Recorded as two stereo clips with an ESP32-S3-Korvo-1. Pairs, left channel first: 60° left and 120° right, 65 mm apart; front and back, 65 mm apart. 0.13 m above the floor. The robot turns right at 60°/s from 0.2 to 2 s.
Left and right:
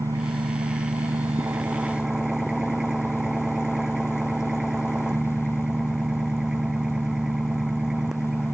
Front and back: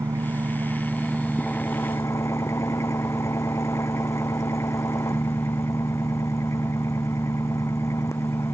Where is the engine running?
145° right; by 8.6 s 40° right.